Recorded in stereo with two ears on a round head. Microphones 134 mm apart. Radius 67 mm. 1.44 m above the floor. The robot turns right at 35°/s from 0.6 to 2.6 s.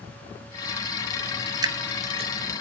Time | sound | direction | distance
1.6 | dripping | 25° right (ahead or behind) | 0.9 m